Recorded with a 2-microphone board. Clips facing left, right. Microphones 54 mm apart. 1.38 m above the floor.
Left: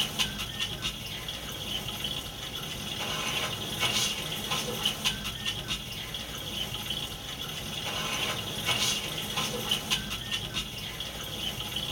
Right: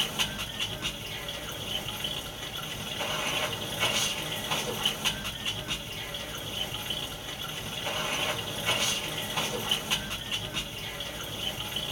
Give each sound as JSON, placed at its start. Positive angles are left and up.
{"t": 0.0, "sound": "running water", "side_deg": -25, "distance_m": 0.8}